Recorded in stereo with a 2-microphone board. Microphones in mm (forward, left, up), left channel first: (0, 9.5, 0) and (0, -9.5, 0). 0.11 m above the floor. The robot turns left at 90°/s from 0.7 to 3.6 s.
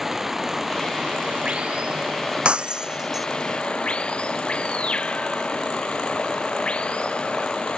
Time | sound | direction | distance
0.0 | running water | 15° right | ?
2.5 | breaking glass | 80° right | ?